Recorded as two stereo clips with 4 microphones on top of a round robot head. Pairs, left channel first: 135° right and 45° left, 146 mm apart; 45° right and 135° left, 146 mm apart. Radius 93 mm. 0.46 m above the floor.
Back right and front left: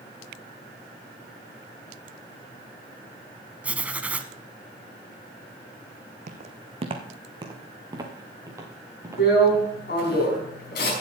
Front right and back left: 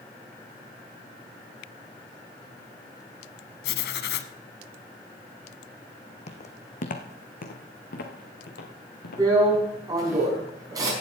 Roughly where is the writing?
Ahead right.